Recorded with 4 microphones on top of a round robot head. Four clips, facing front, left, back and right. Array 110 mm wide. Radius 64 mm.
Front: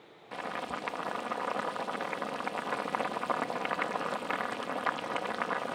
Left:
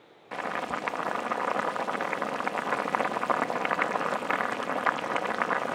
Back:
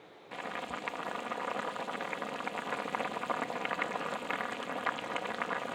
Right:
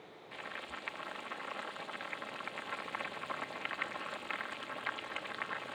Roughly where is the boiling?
Left.